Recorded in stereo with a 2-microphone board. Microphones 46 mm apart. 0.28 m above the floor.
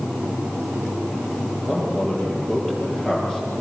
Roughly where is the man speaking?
Left.